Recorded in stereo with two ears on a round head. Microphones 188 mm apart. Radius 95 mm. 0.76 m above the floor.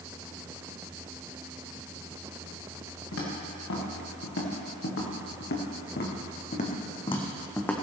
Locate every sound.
3.1 s footsteps: 75° left (ahead or behind), 5 m; by 7.7 s 10° left (ahead or behind), 1.9 m